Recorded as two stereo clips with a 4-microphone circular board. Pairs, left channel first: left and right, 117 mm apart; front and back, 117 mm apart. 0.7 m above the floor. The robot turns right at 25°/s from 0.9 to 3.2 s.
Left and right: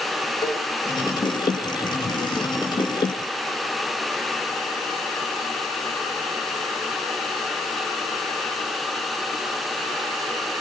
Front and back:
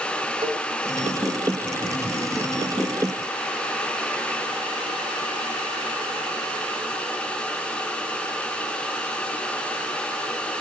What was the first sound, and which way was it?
A cowbell, 135° left.